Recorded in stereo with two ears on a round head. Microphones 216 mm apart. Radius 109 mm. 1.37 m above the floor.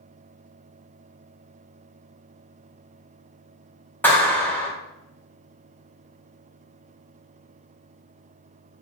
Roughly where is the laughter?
I don't hear laughter.